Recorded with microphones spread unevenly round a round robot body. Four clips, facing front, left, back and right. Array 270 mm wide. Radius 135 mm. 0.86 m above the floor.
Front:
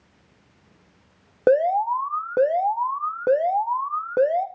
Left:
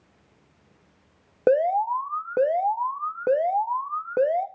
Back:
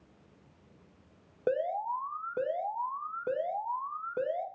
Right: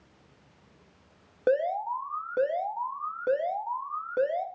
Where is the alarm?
35° left, 1.4 m.